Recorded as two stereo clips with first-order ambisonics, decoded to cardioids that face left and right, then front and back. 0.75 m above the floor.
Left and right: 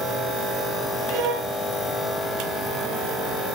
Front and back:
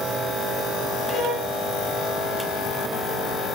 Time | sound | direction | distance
1.1 | a violin | 65° right | 4.5 m